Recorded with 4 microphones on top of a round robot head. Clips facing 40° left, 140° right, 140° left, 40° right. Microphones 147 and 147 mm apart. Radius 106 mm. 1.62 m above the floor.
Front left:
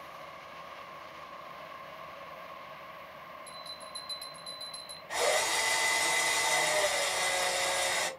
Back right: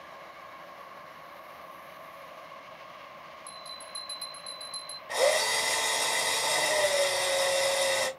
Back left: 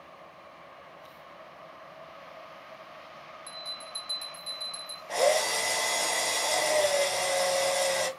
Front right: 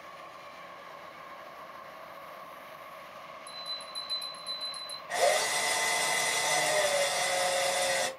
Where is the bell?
145° left, 2.5 m.